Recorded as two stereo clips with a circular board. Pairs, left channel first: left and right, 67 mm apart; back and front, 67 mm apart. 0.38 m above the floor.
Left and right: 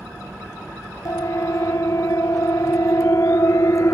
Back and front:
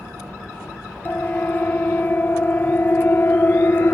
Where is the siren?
120° left; by 3.9 s 125° left.